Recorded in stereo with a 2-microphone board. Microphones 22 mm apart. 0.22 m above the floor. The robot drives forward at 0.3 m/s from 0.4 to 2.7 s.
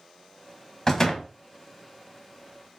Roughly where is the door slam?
Left.